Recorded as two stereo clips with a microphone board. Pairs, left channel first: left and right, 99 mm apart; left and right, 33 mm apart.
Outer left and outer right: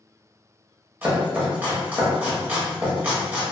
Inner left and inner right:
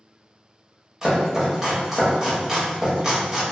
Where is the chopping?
15° right (ahead or behind), 1.0 m.